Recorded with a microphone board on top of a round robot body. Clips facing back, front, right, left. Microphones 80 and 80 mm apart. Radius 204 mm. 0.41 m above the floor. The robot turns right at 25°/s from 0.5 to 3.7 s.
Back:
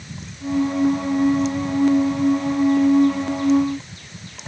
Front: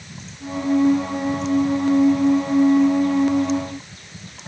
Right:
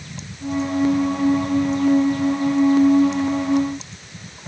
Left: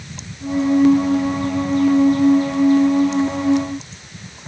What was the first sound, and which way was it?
Only background noise.